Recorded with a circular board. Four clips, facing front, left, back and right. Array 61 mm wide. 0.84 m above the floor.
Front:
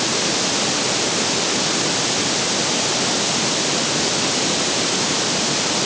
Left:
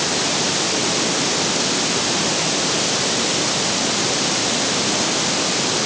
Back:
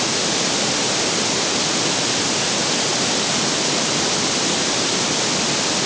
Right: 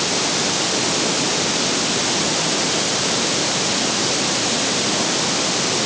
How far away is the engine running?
No engine running in this recording.